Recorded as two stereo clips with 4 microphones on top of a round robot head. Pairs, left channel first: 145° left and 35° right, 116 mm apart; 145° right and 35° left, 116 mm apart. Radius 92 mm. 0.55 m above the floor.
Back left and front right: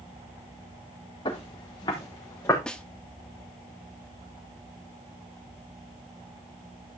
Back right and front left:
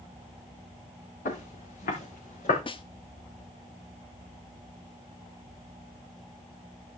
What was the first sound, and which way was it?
Footsteps, 165° right.